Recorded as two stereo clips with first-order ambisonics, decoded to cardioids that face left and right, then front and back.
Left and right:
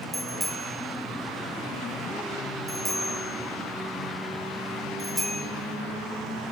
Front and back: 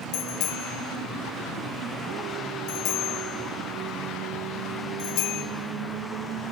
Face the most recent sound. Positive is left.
turn(degrees=-5)